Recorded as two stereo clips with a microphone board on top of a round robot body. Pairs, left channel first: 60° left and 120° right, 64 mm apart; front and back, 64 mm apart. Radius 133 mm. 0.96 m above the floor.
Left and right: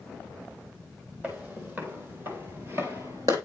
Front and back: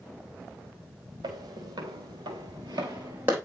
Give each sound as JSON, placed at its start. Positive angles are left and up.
{"t": 1.2, "sound": "footsteps", "azimuth_deg": 175, "distance_m": 2.0}